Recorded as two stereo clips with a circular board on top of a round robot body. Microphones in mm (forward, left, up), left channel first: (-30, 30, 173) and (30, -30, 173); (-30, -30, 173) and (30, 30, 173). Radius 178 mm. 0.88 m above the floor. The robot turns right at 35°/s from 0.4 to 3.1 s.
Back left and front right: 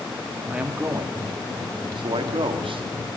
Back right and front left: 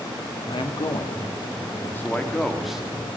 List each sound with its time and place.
0.5 s a man speaking: 120° right, 2.5 m; by 2.8 s 40° right, 2.5 m